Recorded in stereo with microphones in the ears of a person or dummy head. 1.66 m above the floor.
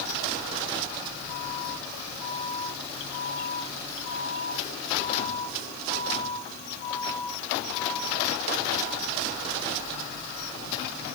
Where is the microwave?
I don't hear a microwave.